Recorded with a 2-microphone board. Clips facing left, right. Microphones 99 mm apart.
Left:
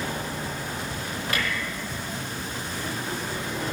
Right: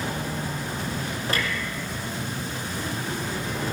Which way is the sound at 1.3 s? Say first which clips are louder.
Right 1 dB; 35° right (ahead or behind).